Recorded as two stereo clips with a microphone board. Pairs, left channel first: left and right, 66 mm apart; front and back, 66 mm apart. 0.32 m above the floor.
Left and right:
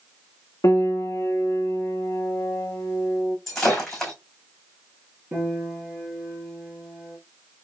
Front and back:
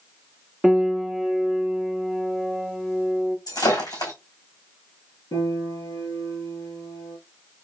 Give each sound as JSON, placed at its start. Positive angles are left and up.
{"t": 0.6, "sound": "a piano", "azimuth_deg": 95, "distance_m": 0.7}
{"t": 3.5, "sound": "breaking glass", "azimuth_deg": 5, "distance_m": 3.0}
{"t": 5.3, "sound": "a piano", "azimuth_deg": -25, "distance_m": 2.5}